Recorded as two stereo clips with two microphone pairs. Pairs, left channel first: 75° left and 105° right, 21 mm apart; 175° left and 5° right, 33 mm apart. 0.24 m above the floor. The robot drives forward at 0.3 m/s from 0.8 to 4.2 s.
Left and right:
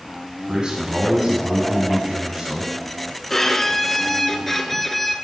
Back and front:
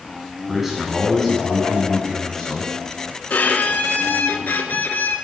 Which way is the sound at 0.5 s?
90° right.